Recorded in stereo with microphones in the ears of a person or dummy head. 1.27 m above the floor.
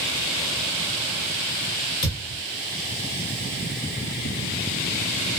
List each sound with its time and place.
2.0 s a thud: 45° left (ahead or behind), 1.6 m